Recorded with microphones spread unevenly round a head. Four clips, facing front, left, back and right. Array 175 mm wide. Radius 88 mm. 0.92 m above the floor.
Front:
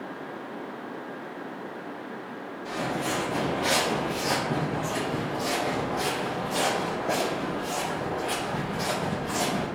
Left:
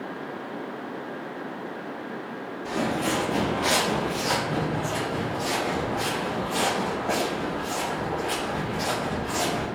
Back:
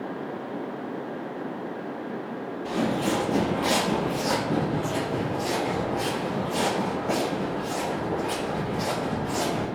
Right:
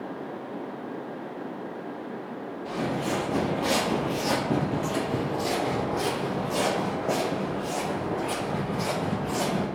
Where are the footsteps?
120° left, 1.0 m; by 9.7 s 70° right, 3.5 m.